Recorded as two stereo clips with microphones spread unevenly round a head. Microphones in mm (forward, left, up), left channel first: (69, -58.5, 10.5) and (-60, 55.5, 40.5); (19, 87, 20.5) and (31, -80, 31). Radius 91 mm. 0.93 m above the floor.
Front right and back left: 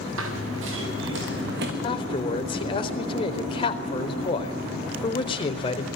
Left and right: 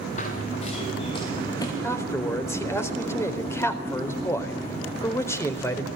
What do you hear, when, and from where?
0.2 s running footsteps: 150° left, 5 m; by 1.7 s 170° left, 3.5 m
1.8 s a man speaking: 20° left, 4 m